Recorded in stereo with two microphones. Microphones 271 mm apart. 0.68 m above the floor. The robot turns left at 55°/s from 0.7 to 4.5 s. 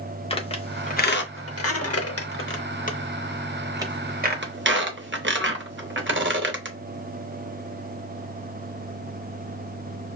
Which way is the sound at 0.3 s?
20° left (ahead or behind).